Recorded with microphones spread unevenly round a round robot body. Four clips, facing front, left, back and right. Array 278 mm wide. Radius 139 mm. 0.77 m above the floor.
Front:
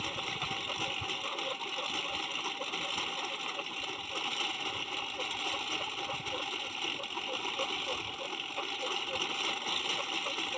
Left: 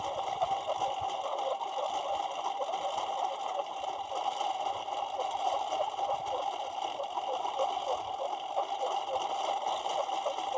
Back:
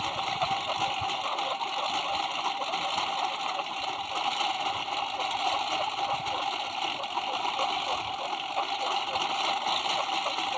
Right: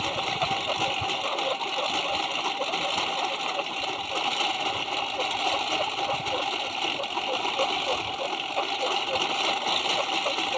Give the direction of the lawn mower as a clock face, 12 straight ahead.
3 o'clock.